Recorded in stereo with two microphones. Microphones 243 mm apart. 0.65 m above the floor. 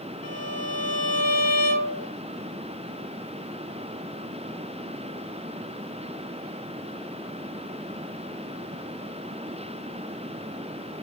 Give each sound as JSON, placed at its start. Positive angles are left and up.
{"t": 0.2, "sound": "a violin", "side_deg": 85, "distance_m": 0.6}